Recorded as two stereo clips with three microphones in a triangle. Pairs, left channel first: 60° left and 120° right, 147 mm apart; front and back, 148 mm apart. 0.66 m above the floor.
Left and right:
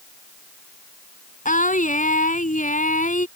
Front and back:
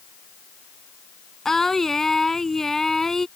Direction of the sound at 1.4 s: 85° left.